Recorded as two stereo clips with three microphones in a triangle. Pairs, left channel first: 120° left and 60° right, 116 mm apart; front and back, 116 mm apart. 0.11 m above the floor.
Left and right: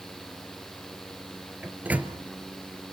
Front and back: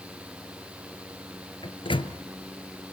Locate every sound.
1.6 s a microwave: 10° left, 1.2 m